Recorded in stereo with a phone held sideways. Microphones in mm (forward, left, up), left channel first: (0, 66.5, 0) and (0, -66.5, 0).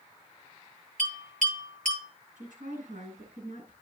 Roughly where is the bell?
Right.